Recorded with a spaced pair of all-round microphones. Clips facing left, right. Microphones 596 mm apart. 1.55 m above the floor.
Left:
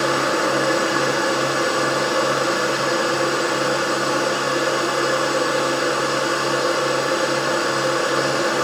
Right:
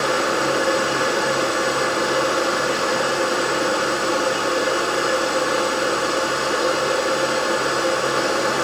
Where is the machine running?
30° right (ahead or behind), 1.5 m.